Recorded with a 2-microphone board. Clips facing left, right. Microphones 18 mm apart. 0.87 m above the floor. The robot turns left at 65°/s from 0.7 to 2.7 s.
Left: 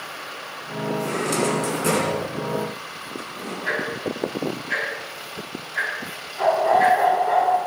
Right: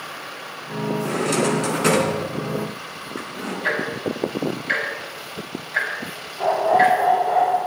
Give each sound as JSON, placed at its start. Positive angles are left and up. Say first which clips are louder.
{"t": 1.0, "sound": "a drawer", "louder": "right 2 dB", "side_deg": 20, "distance_m": 3.5}
{"t": 3.6, "sound": "ticking", "louder": "right 2 dB", "side_deg": -70, "distance_m": 5.5}
{"t": 6.4, "sound": "a dog barking", "louder": "right 1 dB", "side_deg": 25, "distance_m": 4.0}